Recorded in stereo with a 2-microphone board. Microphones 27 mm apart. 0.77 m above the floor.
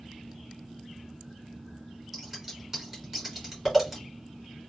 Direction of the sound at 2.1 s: 15° right (ahead or behind).